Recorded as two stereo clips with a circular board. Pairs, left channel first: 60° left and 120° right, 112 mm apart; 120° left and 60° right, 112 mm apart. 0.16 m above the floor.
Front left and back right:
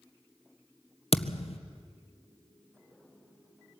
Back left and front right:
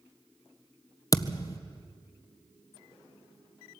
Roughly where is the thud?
Ahead left.